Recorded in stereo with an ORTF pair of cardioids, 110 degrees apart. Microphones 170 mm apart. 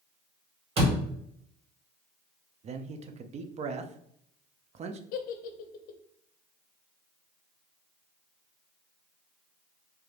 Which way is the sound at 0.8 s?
40° right.